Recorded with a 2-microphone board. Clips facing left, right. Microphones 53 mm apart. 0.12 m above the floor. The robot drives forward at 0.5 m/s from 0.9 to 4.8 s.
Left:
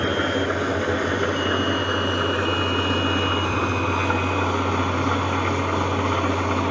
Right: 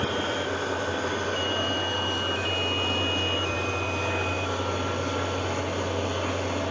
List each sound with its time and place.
0.0 s an engine running: 65° left (ahead or behind), 10 m; by 6.7 s 75° left (ahead or behind), 9 m